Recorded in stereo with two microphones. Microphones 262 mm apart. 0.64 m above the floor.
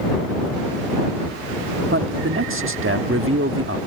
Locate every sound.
1.9 s a man speaking: 50° right (ahead or behind)